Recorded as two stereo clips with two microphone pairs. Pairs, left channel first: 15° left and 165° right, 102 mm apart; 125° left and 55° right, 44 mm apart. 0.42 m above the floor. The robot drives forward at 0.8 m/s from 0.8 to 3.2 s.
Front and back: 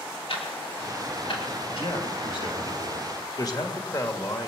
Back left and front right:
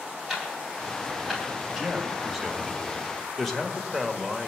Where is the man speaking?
25° left, 2.5 m; by 4.5 s 45° left, 1.8 m.